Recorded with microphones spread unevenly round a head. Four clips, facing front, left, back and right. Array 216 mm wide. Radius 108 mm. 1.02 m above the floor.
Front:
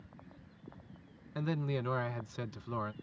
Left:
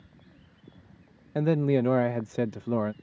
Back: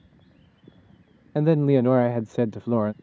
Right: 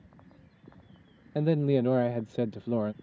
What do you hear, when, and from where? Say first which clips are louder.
1.4 s a man speaking: left 1 dB, back 17 dB; 175° left